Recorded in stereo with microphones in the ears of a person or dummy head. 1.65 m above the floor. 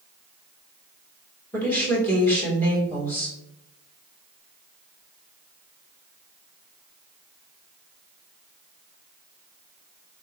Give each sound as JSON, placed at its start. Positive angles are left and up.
{"t": 1.5, "sound": "a woman speaking", "side_deg": 10, "distance_m": 1.7}